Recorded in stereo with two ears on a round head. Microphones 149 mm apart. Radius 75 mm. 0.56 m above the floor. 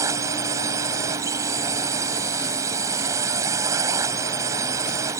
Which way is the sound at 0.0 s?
20° right (ahead or behind).